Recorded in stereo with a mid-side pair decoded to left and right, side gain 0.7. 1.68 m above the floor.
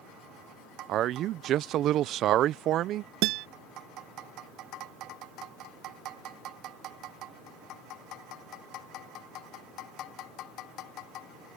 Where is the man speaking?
50° right.